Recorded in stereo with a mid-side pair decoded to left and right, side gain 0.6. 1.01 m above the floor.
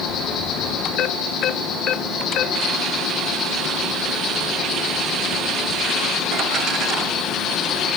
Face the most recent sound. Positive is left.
turn(degrees=45)